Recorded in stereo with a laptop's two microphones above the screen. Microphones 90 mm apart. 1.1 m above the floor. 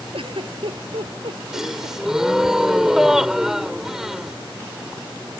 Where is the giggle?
75° right (ahead or behind).